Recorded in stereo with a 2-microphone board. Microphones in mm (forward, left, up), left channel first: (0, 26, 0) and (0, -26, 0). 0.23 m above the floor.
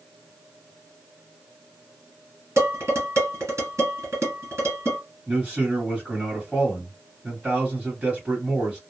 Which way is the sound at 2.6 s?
60° right (ahead or behind).